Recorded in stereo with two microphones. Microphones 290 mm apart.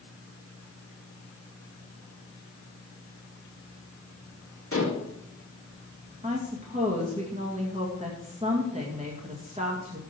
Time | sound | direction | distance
4.7 | dishes clattering | 50° left (ahead or behind) | 1.7 m
6.2 | a woman speaking | 25° right (ahead or behind) | 1.9 m